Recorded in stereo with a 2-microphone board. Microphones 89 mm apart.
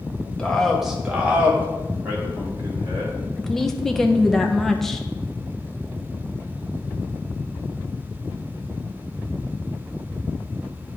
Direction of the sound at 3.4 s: 5° left (ahead or behind).